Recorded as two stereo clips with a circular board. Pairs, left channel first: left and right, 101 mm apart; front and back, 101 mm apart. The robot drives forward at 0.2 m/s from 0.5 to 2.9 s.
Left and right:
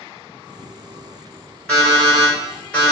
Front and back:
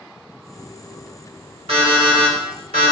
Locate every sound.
1.7 s an alarm clock: 170° left, 1.9 m